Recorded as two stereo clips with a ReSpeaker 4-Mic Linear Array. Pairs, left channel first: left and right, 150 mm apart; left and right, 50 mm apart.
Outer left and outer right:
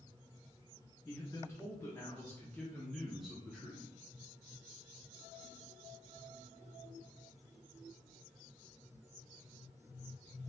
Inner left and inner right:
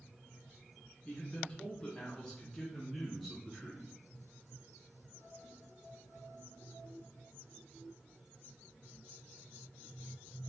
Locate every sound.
1.1 s a man speaking: 20° left (ahead or behind), 1.3 m; by 4.0 s 10° right (ahead or behind), 0.9 m